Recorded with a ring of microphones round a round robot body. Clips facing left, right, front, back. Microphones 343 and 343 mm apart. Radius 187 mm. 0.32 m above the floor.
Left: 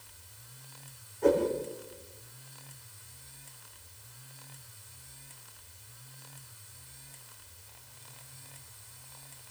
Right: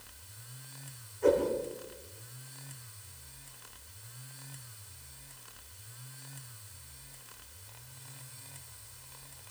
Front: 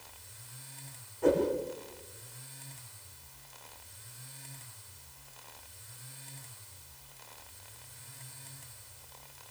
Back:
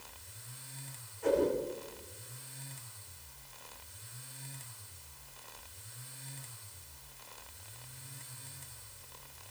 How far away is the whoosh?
About 10 m.